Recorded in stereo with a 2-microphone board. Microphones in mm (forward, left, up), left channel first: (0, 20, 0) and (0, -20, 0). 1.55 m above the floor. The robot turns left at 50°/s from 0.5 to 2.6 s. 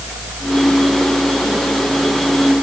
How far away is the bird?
No bird in this recording.